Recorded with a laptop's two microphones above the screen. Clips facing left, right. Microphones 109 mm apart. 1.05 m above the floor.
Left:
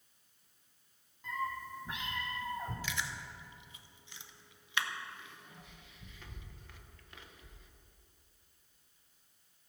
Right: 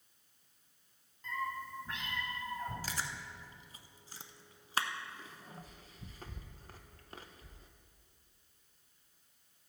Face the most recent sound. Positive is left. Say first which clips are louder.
# left 1 dB
turn(degrees=-35)  # may be behind; listen again after turning